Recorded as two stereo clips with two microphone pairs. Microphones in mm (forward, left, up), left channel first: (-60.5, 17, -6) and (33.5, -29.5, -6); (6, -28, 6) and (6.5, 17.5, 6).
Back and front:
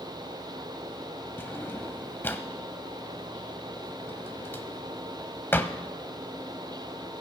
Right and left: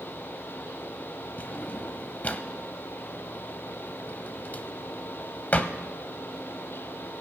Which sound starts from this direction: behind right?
A drawer, at 1.4 s.